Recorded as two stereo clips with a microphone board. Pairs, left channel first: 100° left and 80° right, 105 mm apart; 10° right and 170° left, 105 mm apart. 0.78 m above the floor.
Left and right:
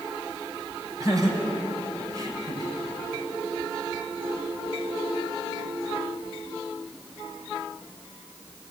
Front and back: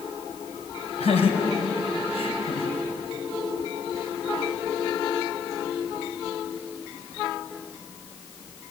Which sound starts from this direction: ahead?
Laughter, at 1.0 s.